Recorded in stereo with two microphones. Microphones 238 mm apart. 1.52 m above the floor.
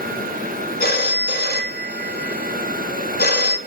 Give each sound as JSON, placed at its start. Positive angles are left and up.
{"t": 0.8, "sound": "a phone ringing", "side_deg": 45, "distance_m": 1.1}